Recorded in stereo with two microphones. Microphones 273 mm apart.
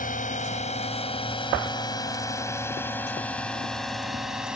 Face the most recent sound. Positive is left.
turn(degrees=-5)  # may be behind; listen again after turning